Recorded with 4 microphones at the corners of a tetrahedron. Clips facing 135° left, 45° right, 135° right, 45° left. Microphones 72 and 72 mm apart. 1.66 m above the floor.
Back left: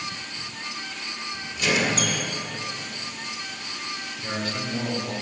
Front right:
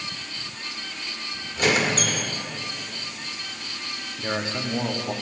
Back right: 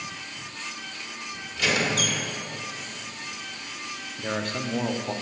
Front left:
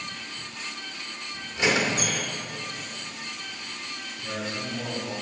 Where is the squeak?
15° right, 1.9 m.